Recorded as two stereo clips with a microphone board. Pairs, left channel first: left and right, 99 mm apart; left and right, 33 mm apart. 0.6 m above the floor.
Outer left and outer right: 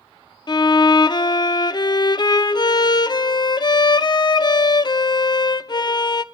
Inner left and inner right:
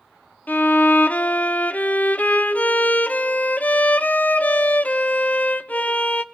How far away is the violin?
About 0.6 m.